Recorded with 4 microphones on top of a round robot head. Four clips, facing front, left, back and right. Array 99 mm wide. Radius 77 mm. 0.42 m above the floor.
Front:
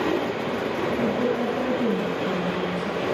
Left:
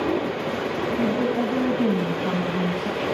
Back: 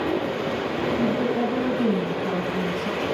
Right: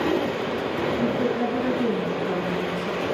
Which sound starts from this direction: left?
A woman speaking, at 1.0 s.